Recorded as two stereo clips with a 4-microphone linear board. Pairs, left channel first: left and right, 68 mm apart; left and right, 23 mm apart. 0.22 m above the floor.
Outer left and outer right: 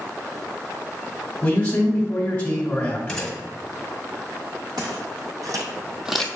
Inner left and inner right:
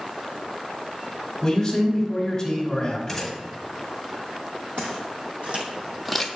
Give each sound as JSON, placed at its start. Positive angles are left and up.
{"t": 1.4, "sound": "a man speaking", "side_deg": 15, "distance_m": 1.0}
{"t": 3.1, "sound": "a gunshot", "side_deg": 10, "distance_m": 0.8}
{"t": 4.8, "sound": "footsteps", "side_deg": -75, "distance_m": 1.5}